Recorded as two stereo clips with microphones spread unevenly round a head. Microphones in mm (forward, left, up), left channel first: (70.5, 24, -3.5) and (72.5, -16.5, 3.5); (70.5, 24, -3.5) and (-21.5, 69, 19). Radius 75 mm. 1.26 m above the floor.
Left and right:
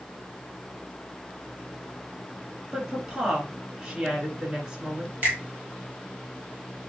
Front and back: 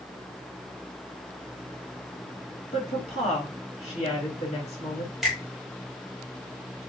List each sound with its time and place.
2.7 s a woman speaking: 20° right, 2.5 m
5.2 s a finger snap: 125° right, 0.6 m